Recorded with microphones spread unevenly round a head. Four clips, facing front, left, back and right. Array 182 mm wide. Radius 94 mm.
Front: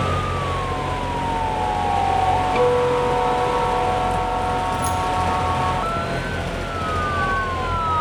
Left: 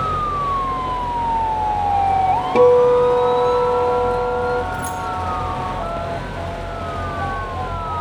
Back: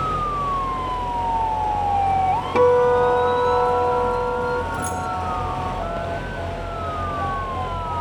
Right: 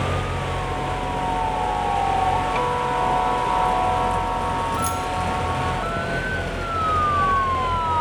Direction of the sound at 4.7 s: 155° right.